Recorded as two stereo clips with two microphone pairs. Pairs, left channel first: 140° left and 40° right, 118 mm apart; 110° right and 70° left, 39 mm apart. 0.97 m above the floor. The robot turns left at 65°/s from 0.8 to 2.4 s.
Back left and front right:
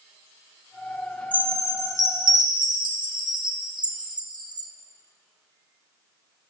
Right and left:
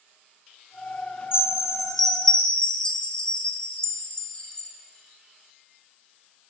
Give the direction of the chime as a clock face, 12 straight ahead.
11 o'clock.